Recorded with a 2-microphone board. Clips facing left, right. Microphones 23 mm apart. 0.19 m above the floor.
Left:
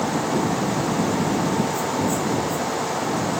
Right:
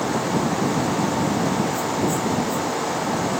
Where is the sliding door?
No sliding door in this recording.